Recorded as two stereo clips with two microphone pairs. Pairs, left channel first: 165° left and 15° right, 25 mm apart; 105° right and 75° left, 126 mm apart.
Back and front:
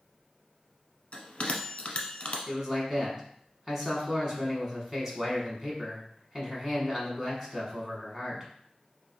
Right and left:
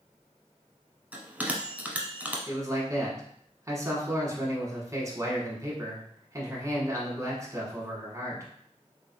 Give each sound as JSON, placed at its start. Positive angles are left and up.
{"t": 1.1, "sound": "a bell", "azimuth_deg": 150, "distance_m": 0.8}
{"t": 2.5, "sound": "a man speaking", "azimuth_deg": 45, "distance_m": 1.1}